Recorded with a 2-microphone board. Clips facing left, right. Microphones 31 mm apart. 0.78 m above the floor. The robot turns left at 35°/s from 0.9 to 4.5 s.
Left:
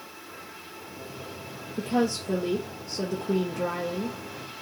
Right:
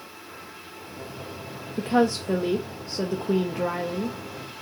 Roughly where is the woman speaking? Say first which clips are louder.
Right 4 dB; right.